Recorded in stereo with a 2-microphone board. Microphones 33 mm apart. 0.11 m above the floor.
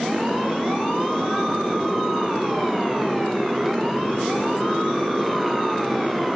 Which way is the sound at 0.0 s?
10° right (ahead or behind).